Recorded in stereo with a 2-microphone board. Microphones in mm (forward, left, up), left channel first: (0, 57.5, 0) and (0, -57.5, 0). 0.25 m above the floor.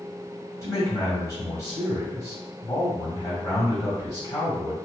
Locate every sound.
0.6 s a man speaking: 25° left (ahead or behind), 1.3 m